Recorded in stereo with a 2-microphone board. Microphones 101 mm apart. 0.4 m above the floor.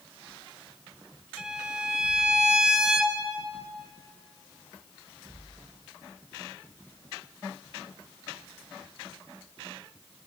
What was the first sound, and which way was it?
A violin, 5° right (ahead or behind).